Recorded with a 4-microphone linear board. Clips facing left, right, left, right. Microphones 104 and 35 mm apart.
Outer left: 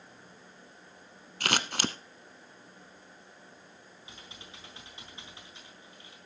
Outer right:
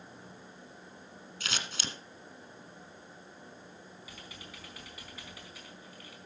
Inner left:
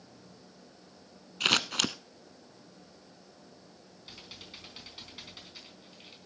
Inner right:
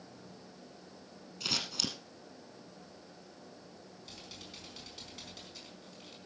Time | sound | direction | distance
1.4 | scissors | 65° left (ahead or behind) | 0.8 m
4.0 | typing on a keyboard | 25° left (ahead or behind) | 4 m